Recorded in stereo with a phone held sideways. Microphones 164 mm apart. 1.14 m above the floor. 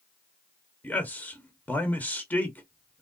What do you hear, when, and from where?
0.8 s a man speaking: 10° left (ahead or behind), 0.9 m